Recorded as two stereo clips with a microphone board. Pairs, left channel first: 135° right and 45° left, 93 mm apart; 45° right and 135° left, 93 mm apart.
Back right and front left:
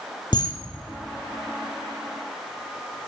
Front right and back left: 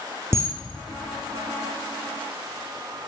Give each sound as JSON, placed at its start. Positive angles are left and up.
{"t": 0.3, "sound": "a camera shutter", "azimuth_deg": -165, "distance_m": 2.5}